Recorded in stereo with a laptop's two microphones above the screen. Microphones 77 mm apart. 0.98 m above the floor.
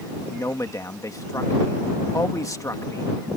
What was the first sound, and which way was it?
A man speaking, 45° left (ahead or behind).